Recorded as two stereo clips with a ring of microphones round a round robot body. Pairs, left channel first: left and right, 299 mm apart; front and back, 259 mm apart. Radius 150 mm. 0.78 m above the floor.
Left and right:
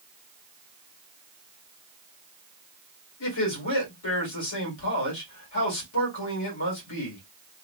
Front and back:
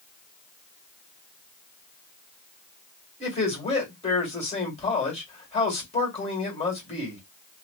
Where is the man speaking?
65° left, 1.9 m.